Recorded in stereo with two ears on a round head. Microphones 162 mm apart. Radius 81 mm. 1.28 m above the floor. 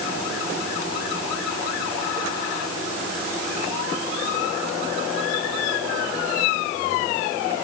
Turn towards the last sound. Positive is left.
No sound to turn to.